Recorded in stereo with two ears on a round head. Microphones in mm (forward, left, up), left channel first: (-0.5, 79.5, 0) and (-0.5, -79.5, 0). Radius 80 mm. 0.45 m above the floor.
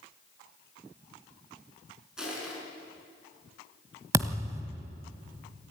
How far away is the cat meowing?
I don't hear a cat meowing.